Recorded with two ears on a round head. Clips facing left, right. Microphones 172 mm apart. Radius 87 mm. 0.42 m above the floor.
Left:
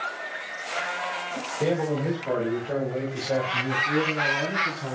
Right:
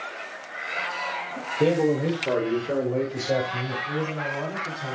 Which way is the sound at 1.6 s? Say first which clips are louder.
Right 4 dB; 30° right (ahead or behind).